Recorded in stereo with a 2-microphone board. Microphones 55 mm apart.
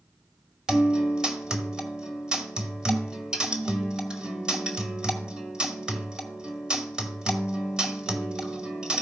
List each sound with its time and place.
0.7 s a guitar: 15° right (ahead or behind), 1.7 m